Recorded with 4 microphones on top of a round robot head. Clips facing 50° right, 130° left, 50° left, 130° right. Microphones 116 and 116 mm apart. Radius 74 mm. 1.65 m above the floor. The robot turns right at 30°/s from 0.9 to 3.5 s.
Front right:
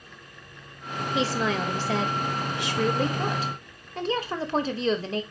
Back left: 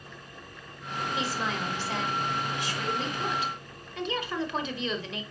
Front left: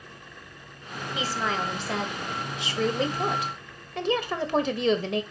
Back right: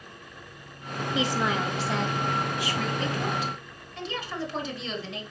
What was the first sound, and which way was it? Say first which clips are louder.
A woman speaking: front right 8 dB, back right 2 dB; 65° right.